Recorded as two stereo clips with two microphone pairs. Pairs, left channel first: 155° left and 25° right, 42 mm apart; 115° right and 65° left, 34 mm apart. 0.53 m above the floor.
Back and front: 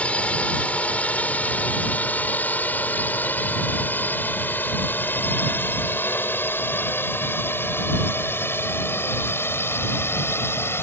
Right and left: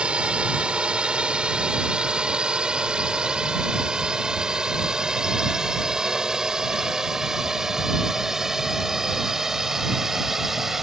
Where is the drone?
110° left; by 10.8 s 145° left.